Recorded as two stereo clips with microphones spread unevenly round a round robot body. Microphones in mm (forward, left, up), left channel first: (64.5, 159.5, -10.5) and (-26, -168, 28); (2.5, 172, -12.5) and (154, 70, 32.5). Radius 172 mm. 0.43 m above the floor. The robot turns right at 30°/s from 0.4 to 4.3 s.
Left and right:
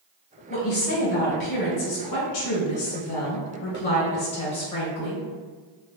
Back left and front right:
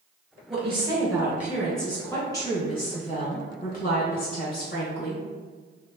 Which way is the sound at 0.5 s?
30° left.